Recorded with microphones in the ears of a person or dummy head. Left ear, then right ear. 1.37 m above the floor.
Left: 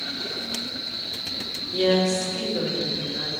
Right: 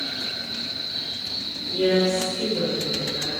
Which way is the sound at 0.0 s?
75° left (ahead or behind).